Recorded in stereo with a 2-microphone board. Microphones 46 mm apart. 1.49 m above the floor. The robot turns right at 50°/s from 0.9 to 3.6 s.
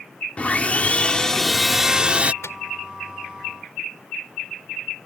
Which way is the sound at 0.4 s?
145° left.